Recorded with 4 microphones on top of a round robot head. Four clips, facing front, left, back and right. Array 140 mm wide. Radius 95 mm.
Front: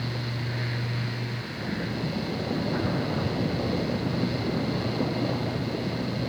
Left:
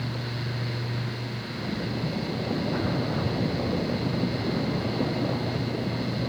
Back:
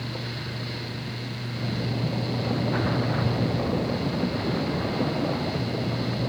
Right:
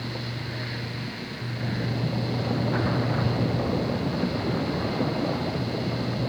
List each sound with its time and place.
Only background noise.